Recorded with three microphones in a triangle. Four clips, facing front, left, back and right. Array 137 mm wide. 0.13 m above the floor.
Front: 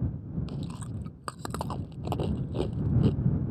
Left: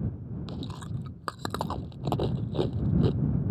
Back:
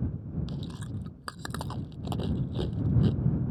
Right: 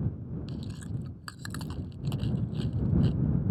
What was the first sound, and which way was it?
Chewing, 70° left.